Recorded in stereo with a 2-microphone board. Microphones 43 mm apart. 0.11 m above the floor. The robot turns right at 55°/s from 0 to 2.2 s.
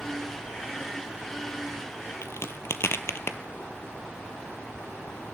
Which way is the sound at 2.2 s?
65° left (ahead or behind).